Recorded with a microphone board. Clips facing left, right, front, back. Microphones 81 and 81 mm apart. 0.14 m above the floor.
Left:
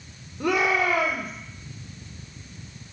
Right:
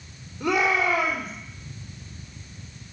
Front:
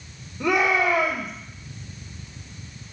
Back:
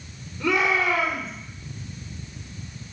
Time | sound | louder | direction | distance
0.4 | a shout | even, front 2 dB | 70° left | 2 m